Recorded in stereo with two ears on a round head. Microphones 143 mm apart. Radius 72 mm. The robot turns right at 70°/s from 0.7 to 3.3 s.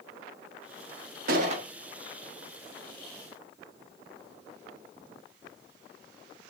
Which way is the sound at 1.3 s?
55° right (ahead or behind).